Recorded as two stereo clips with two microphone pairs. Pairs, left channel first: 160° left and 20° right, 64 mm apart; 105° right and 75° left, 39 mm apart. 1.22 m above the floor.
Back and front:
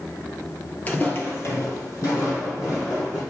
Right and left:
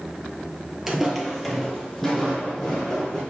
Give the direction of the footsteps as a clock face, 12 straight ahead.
7 o'clock.